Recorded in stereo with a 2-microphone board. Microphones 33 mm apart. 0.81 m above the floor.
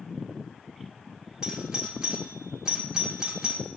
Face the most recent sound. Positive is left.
turn(degrees=-20)  # may be behind; listen again after turning